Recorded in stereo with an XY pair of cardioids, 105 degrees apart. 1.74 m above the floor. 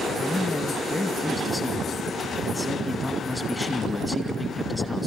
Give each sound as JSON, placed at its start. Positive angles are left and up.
{"t": 0.2, "sound": "a man speaking", "azimuth_deg": 0, "distance_m": 2.5}